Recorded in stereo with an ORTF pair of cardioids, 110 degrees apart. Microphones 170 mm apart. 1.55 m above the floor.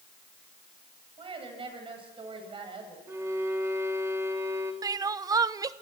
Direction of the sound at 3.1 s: 15° right.